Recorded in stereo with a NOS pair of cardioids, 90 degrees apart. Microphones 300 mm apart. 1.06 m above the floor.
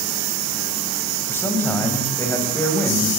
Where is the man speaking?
5° left, 8 m.